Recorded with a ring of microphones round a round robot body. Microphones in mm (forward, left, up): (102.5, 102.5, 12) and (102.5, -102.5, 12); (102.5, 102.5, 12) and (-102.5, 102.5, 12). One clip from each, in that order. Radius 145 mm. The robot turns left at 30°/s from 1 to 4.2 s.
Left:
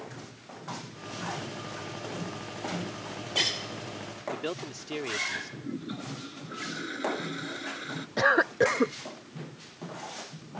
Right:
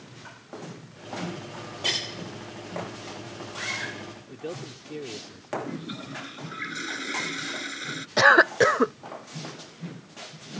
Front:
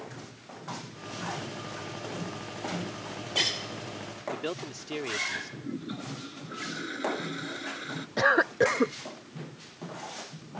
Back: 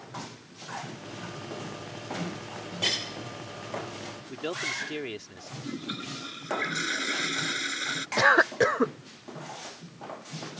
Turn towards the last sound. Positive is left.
turn(degrees=-120)